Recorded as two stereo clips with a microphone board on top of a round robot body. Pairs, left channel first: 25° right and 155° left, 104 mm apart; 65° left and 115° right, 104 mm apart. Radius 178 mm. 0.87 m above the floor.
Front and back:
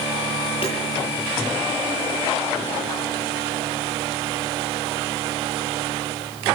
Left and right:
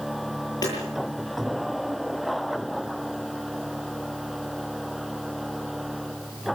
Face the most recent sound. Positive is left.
turn(degrees=15)